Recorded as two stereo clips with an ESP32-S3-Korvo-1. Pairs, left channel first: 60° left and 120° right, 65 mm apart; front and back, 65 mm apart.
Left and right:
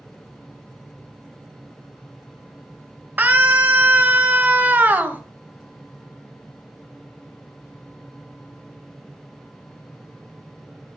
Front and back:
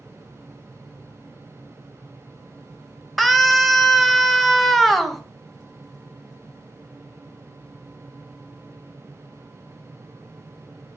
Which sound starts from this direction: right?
A scream, at 3.2 s.